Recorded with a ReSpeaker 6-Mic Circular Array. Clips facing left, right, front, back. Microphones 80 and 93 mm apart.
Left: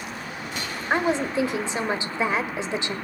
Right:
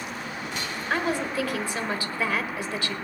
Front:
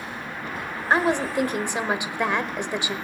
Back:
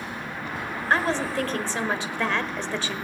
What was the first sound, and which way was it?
A woman speaking, 55° left.